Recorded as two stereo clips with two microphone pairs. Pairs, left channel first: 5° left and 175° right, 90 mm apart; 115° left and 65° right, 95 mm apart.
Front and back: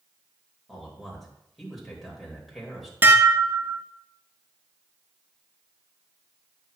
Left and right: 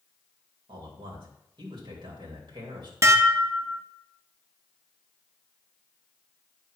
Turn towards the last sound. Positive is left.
turn(degrees=-115)